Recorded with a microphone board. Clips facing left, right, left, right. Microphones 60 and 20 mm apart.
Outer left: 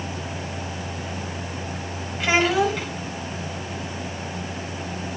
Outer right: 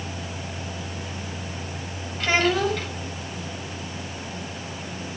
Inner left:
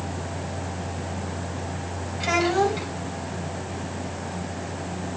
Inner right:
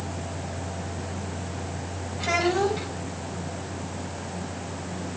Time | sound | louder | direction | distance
2.2 | a child speaking | outer left 2 dB, inner left 2 dB | 10° left (ahead or behind) | 3.5 m